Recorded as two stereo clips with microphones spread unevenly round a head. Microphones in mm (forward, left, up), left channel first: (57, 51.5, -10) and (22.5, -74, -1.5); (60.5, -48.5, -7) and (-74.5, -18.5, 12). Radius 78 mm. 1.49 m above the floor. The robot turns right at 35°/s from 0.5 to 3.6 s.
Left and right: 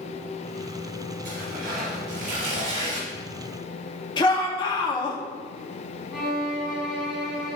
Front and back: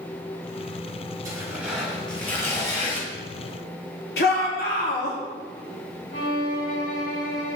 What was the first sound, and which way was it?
Tearing paper, 130° right.